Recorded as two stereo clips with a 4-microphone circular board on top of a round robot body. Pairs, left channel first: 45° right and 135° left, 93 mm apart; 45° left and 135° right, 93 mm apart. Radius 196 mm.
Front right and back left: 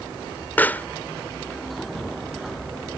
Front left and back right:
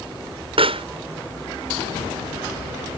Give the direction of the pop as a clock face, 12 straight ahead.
4 o'clock.